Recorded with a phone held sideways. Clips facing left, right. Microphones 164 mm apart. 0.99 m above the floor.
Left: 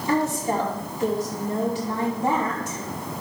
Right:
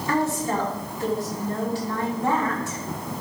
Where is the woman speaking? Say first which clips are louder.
Left 1 dB; 20° left (ahead or behind), 2.5 m.